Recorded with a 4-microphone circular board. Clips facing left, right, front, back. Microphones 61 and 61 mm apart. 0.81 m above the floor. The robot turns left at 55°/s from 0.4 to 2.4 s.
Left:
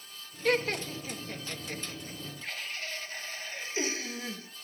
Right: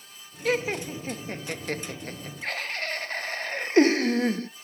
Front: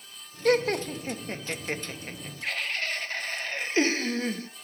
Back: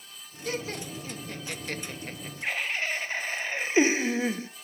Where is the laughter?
Straight ahead, 0.6 m; by 4.5 s 105° right, 0.6 m.